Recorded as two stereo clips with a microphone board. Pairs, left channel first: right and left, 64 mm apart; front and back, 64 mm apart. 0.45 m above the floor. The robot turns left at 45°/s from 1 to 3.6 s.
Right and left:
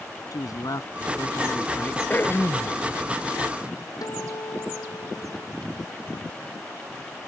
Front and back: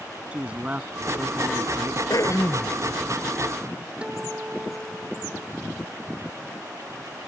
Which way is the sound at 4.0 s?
105° right.